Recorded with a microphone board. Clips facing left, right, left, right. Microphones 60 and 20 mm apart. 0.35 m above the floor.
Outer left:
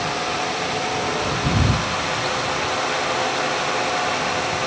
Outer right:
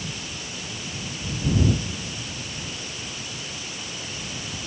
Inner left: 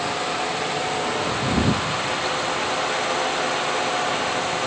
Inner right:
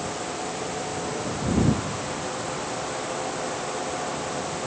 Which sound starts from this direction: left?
A drone, at 0.0 s.